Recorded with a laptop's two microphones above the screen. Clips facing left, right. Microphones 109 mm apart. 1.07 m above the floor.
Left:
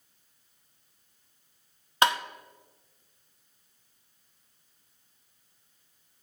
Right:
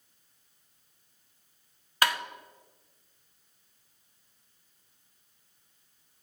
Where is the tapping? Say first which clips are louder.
Left 4 dB; 25° left (ahead or behind), 0.5 m.